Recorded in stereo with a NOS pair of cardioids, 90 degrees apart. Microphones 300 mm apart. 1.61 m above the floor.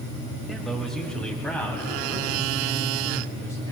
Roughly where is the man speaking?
Ahead.